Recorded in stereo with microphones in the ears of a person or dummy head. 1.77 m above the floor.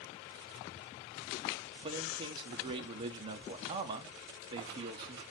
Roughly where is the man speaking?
Right.